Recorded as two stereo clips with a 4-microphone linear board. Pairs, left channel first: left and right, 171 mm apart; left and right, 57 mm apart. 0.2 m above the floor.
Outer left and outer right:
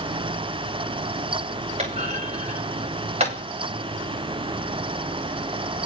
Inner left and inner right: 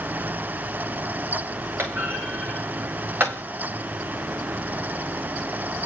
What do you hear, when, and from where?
1.8 s a clunk: 40° right (ahead or behind), 9 m